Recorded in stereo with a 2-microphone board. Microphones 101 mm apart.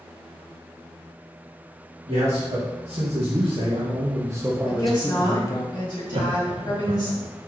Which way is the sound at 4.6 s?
40° left (ahead or behind).